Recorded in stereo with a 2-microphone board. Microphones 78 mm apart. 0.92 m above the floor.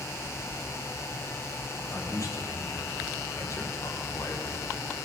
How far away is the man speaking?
About 3 m.